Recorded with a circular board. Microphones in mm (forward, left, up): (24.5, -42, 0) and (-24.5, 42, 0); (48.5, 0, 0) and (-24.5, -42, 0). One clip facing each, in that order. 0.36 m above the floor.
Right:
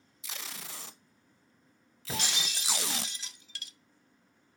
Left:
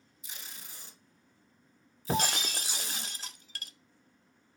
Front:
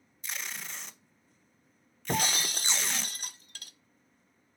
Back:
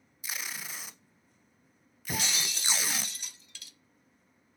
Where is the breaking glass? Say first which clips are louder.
Left 6 dB, front 4 dB; 75° left, 0.5 m.